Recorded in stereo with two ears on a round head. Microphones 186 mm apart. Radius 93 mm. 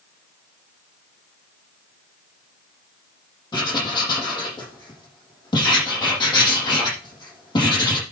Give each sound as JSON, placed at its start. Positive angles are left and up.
{"t": 3.5, "sound": "writing", "side_deg": 20, "distance_m": 6.5}